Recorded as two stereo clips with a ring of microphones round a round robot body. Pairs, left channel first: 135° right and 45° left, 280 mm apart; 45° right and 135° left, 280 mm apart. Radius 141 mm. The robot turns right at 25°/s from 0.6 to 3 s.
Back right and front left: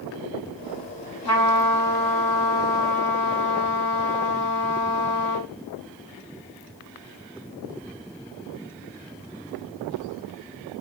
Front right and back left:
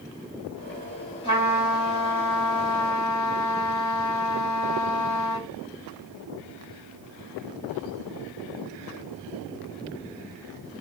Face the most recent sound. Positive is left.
turn(degrees=-70)